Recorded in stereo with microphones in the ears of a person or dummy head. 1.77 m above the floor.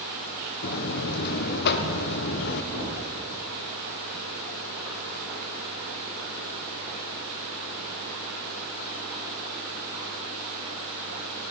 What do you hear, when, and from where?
0.6 s a buzzer: 60° left (ahead or behind), 1.0 m
2.7 s an explosion: 60° right (ahead or behind), 6.5 m